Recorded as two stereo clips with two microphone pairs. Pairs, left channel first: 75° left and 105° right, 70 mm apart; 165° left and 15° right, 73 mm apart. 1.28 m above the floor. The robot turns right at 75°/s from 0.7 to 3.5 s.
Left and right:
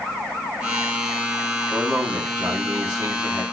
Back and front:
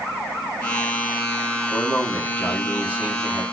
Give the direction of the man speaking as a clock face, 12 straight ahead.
6 o'clock.